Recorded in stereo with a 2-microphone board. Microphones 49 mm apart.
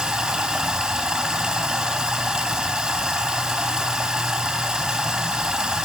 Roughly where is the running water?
Centre.